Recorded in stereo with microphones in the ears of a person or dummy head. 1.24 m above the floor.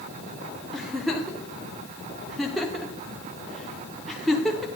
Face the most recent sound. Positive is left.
turn(degrees=0)  # may be behind; listen again after turning